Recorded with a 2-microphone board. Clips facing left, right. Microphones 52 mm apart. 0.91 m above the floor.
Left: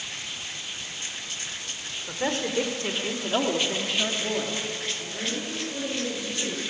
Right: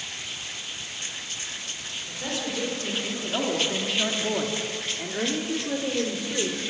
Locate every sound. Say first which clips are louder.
2.1 s a woman speaking: left 4 dB; 45° left (ahead or behind), 3.5 m; by 6.6 s 70° right (ahead or behind), 4.5 m